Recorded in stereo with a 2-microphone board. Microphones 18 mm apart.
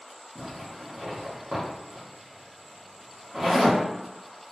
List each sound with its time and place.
0.3 s a zipper: 35° right (ahead or behind), 1.1 m